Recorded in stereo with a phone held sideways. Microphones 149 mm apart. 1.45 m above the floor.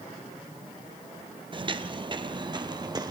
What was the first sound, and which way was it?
Footsteps, 35° right (ahead or behind).